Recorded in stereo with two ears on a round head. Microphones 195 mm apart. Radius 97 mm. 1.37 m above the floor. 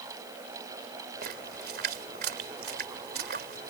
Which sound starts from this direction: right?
A splash, at 1.2 s.